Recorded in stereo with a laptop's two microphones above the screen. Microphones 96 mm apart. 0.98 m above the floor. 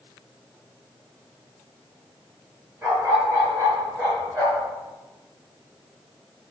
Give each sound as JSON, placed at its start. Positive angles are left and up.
{"t": 2.8, "sound": "a dog barking", "side_deg": -30, "distance_m": 6.0}